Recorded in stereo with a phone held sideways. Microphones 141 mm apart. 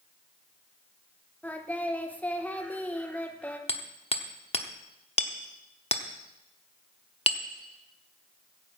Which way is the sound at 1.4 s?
10° left (ahead or behind).